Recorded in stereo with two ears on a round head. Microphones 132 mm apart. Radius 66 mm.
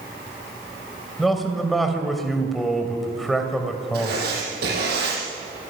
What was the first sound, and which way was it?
A man speaking, centre (ahead or behind).